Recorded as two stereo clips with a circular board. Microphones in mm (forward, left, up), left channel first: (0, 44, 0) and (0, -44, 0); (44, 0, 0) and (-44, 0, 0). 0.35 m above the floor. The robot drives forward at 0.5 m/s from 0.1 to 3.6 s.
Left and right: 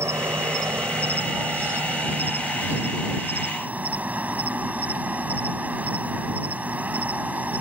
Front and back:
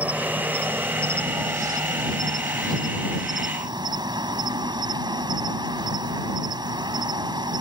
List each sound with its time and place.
0.0 s an insect: 120° right; by 7.6 s 160° right